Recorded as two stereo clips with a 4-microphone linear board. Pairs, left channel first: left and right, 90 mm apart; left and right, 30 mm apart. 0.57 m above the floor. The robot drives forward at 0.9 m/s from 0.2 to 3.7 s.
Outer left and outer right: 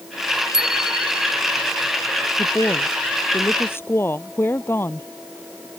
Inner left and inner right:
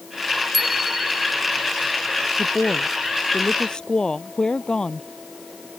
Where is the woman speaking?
30° left (ahead or behind).